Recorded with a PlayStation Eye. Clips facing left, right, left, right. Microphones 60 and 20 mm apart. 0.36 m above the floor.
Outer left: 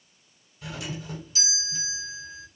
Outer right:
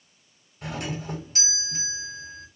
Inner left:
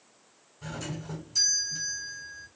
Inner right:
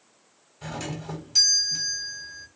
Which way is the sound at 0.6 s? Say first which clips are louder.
Outer right 4 dB, inner right 4 dB; 55° right (ahead or behind).